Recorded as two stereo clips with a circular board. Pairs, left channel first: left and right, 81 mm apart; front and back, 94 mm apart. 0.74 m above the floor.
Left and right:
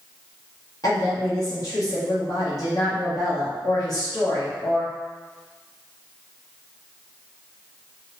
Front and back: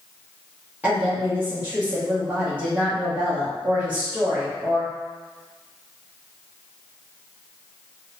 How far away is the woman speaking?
About 0.8 m.